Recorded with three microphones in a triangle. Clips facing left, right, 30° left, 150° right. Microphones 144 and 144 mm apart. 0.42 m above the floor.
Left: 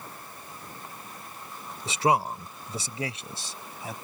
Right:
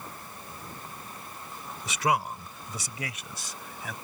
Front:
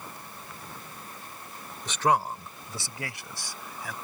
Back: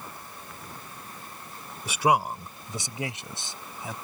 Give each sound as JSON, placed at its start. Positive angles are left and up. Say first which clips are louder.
{"t": 1.9, "sound": "a man speaking", "louder": "left 3 dB, back 1 dB", "azimuth_deg": 135}